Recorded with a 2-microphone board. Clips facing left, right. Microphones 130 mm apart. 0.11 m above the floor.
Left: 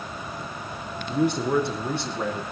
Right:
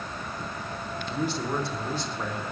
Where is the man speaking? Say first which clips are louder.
Left 7 dB; 50° left (ahead or behind), 6 m; by 2.4 s 65° left (ahead or behind), 6.5 m.